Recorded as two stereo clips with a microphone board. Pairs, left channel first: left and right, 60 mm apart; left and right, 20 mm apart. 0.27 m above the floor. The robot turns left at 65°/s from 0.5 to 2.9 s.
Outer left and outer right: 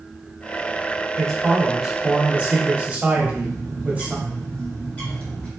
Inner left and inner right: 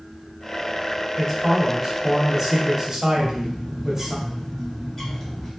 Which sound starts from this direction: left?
A bird, at 3.2 s.